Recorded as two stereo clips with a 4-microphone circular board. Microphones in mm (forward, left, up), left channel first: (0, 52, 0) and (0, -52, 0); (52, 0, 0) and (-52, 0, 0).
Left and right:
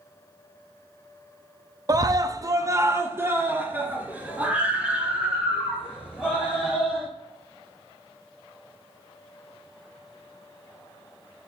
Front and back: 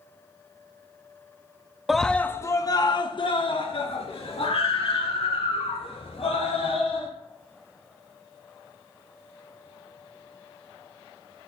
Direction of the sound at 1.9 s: 95° right.